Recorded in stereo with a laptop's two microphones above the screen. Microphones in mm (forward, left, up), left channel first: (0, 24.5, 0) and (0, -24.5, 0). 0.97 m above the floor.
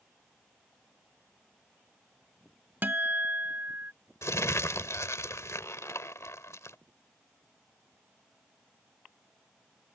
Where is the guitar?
45° right (ahead or behind).